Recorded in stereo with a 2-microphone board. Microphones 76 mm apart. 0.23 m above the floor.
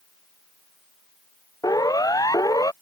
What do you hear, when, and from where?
1.6 s a siren: 55° left (ahead or behind)